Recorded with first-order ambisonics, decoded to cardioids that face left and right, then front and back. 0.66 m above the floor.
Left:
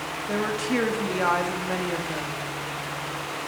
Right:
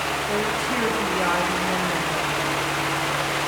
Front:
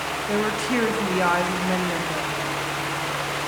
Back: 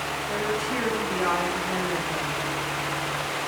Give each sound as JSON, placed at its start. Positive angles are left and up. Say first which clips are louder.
{"t": 0.3, "sound": "a woman speaking", "louder": "right 3 dB, front 4 dB", "azimuth_deg": 10, "distance_m": 0.9}